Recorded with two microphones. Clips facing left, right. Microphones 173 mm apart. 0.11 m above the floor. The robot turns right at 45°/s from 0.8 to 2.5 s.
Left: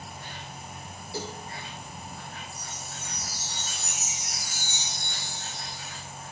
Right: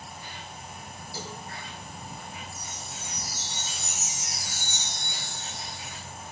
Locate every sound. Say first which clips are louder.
0.0 s an insect: left 1 dB; 125° left, 1.7 m; by 6.3 s 160° right, 1.7 m
1.1 s a cowbell: left 5 dB; 60° left (ahead or behind), 4 m; by 1.4 s 50° left (ahead or behind), 4 m
2.5 s a chime: even; 20° left (ahead or behind), 4.5 m; by 6.0 s 15° left (ahead or behind), 4.5 m